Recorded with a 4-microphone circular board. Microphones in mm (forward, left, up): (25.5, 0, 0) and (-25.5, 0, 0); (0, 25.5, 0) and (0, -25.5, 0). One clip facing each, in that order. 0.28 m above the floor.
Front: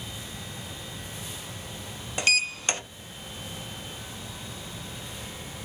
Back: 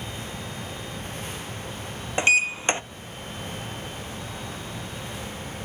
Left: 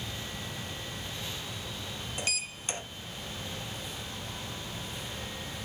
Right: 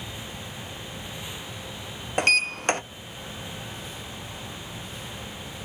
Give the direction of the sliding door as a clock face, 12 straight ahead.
4 o'clock.